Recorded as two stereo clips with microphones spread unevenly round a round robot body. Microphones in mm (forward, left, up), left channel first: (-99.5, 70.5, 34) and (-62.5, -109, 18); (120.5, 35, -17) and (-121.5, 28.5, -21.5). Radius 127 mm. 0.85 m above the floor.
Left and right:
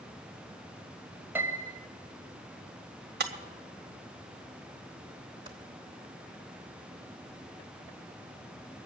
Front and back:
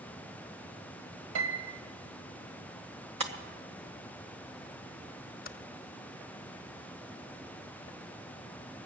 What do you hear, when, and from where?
1.4 s a piano: 160° right, 1.9 m
3.2 s breaking glass: 110° right, 1.2 m
5.5 s typing on a keyboard: 15° right, 0.6 m